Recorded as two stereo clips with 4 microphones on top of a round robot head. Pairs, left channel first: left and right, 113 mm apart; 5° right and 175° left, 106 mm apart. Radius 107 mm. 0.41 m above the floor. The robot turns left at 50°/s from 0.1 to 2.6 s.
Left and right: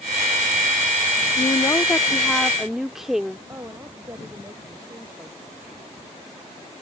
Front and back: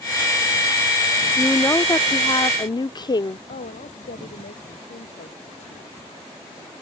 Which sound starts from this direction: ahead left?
A woman speaking, at 1.4 s.